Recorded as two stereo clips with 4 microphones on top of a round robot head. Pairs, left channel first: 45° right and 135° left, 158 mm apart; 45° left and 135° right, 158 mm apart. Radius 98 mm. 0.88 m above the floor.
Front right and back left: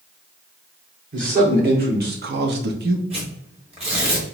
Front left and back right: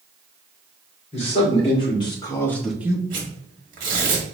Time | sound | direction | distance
1.1 | a man speaking | 100° left | 2 m
3.1 | tearing paper | 175° right | 1.4 m